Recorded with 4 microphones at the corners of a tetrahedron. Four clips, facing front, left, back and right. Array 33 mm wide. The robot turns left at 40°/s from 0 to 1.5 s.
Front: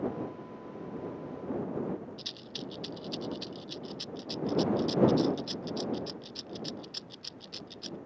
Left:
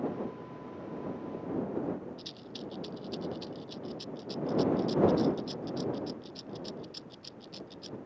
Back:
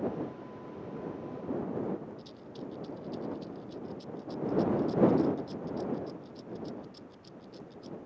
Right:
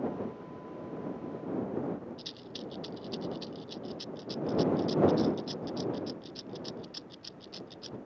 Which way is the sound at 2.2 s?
20° right.